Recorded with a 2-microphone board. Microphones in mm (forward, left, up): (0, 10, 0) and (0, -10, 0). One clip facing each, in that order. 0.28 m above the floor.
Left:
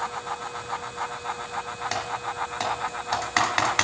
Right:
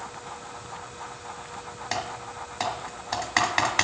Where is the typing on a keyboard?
5° left (ahead or behind), 2.5 m.